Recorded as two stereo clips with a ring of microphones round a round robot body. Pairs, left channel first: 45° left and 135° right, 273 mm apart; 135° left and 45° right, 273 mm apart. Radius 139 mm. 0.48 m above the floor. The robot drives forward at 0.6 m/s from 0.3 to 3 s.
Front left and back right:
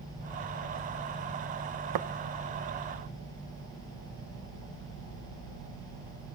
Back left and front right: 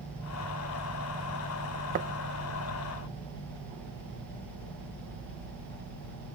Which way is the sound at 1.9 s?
110° right.